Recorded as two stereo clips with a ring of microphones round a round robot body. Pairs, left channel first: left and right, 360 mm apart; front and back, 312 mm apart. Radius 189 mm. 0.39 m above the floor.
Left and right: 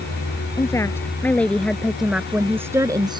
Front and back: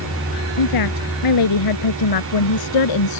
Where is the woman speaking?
10° left; by 3.2 s 10° right.